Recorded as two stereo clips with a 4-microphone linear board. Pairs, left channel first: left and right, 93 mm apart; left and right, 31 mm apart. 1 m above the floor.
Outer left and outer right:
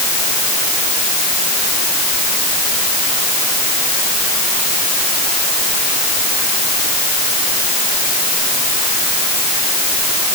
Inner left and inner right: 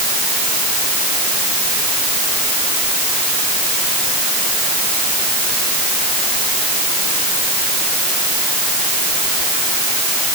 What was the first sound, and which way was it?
Only background noise.